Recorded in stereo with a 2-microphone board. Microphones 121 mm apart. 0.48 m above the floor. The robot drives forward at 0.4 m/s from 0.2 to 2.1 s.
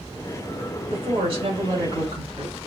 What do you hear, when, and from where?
0.9 s a woman speaking: 55° right (ahead or behind), 2.0 m; by 2.6 s 45° right (ahead or behind), 2 m